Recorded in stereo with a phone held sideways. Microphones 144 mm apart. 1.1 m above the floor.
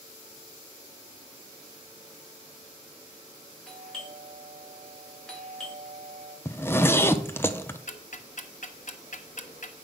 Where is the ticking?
60° left (ahead or behind), 0.9 m.